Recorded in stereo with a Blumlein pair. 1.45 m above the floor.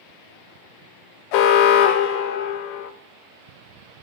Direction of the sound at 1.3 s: 45° left.